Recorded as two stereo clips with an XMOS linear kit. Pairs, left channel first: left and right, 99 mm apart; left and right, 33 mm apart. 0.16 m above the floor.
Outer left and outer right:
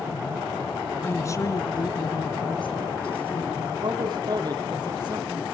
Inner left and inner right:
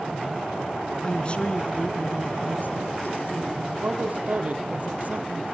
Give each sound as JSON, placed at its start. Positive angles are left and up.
{"t": 1.0, "sound": "a woman speaking", "side_deg": 25, "distance_m": 1.7}
{"t": 3.8, "sound": "a man speaking", "side_deg": -45, "distance_m": 5.0}